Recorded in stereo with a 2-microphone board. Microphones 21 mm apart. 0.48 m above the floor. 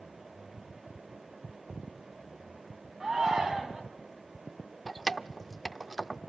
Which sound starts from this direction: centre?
Keys jangling, at 4.9 s.